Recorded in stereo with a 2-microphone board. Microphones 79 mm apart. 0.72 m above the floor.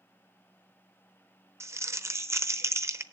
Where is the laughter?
No laughter in this recording.